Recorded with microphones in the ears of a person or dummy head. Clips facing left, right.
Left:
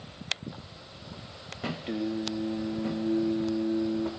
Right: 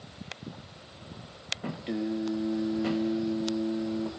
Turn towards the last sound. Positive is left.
turn(degrees=0)  # may be behind; listen again after turning